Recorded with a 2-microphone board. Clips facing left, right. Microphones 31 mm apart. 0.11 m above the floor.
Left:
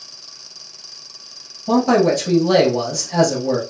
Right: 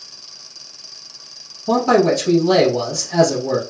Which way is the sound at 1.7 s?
5° right (ahead or behind).